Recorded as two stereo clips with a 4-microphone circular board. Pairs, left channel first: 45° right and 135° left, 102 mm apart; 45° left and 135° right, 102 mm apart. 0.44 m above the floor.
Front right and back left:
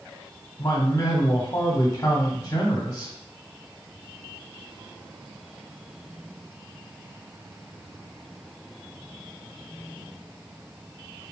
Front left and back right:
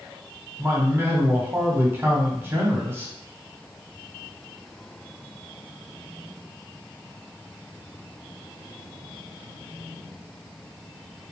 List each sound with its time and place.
0.6 s a man speaking: 80° right, 1.0 m